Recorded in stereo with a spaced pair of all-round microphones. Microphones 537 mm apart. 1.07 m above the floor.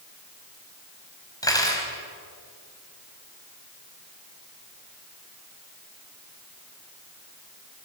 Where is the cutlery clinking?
5° left (ahead or behind), 4 m.